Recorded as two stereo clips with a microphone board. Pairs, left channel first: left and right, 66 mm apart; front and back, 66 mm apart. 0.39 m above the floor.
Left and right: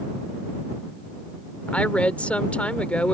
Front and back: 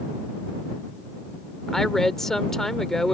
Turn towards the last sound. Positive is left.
turn(degrees=80)